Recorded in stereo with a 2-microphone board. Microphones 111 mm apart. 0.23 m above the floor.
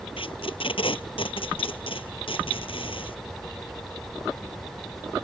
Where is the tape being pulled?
50° left (ahead or behind).